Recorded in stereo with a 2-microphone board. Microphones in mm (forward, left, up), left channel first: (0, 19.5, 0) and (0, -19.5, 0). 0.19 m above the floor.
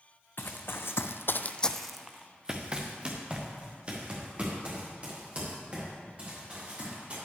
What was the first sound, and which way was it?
Running footsteps, 60° left (ahead or behind).